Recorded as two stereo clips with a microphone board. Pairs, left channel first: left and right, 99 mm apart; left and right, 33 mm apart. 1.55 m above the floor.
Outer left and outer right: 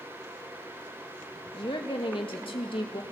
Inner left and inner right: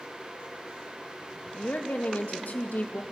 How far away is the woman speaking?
About 2 m.